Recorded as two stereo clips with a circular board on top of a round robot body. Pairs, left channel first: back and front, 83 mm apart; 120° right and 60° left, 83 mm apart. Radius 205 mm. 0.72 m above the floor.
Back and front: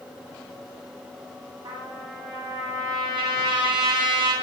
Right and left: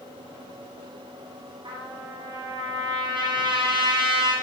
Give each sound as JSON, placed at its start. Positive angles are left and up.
{"t": 1.6, "sound": "a trumpet", "azimuth_deg": 30, "distance_m": 3.0}